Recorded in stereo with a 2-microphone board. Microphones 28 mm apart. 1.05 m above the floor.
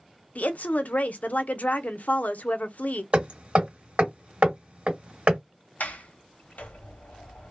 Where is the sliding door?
85° left, 0.6 m.